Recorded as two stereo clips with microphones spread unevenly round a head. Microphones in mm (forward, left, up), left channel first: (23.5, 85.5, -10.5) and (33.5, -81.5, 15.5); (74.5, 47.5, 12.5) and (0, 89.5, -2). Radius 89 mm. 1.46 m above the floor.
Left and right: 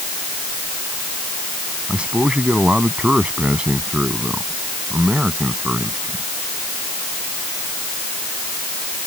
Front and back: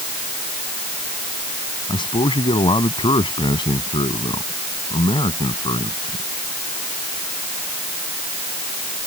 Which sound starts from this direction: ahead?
A man speaking, at 1.9 s.